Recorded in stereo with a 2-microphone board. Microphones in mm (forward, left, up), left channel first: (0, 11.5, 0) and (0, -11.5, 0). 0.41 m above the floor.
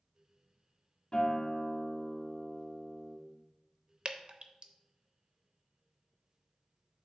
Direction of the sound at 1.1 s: 35° left (ahead or behind).